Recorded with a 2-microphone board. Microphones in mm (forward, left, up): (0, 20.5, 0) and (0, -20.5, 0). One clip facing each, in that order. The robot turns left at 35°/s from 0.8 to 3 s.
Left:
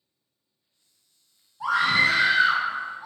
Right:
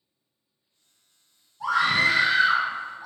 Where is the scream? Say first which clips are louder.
Left 1 dB; 20° left (ahead or behind), 1.2 m; by 3.1 s 10° left (ahead or behind), 1.2 m.